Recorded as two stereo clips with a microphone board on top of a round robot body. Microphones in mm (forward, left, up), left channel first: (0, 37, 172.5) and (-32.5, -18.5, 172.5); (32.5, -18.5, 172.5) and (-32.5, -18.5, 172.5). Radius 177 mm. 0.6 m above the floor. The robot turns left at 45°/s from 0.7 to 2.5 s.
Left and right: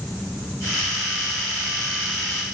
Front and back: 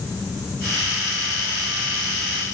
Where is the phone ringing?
No phone ringing in this recording.